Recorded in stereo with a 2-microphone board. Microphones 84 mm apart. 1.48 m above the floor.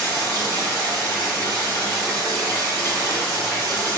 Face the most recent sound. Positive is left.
turn(degrees=35)  # may be behind; listen again after turning